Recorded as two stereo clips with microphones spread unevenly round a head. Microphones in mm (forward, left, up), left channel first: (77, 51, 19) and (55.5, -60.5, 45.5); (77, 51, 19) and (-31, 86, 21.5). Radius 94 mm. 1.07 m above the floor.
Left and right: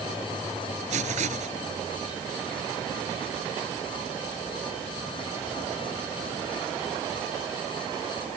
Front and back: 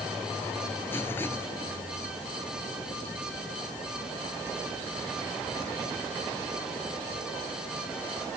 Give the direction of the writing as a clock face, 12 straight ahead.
3 o'clock.